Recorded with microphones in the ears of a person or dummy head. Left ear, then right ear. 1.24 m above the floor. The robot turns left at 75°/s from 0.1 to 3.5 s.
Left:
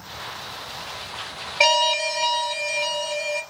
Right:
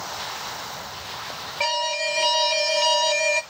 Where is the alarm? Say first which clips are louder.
Left 6 dB; 30° left, 0.7 m; by 3.4 s 105° right, 0.7 m.